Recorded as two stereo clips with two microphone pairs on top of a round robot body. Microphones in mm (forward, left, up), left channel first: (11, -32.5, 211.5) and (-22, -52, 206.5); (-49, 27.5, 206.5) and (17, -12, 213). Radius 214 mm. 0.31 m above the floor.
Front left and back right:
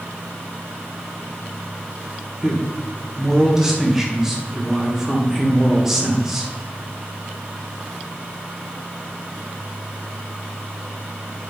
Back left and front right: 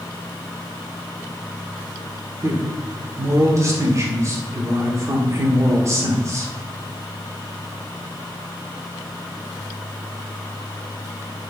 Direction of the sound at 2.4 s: 75° right.